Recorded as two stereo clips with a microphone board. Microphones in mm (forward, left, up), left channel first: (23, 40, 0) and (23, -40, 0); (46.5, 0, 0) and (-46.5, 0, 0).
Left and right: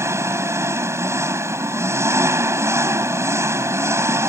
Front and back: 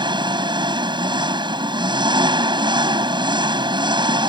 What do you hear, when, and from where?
0.0 s an engine running: 145° right